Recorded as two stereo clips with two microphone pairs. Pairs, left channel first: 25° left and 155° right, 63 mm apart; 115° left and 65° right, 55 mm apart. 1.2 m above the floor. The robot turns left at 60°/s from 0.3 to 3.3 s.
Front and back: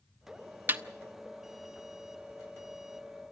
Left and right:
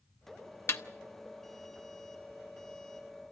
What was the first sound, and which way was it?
A snare drum, 150° left.